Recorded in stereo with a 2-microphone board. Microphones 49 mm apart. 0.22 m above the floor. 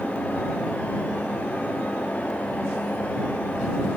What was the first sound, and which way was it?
Only background noise.